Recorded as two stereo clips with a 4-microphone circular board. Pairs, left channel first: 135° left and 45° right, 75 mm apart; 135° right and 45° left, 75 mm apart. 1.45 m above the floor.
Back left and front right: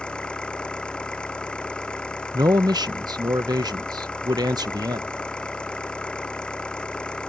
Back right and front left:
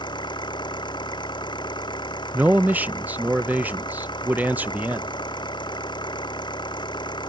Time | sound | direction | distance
0.0 | an engine running | 150° right | ?
2.3 | a man speaking | 25° right | ?